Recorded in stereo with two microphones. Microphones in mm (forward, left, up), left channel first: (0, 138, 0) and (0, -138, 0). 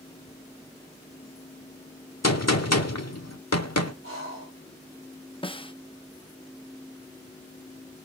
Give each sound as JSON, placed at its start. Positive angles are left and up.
{"t": 2.2, "sound": "a gunshot", "side_deg": 70, "distance_m": 1.3}
{"t": 4.0, "sound": "breathing", "side_deg": -55, "distance_m": 9.5}
{"t": 5.4, "sound": "a snare drum", "side_deg": 20, "distance_m": 0.8}